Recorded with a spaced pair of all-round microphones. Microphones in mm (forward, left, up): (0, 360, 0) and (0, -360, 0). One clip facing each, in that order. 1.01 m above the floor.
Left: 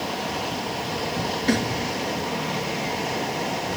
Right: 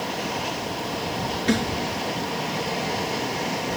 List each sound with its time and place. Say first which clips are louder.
1.5 s a snare drum: even; 40° right (ahead or behind)